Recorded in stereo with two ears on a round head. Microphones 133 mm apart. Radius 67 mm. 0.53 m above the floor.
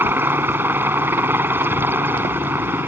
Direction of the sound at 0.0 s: 15° right (ahead or behind).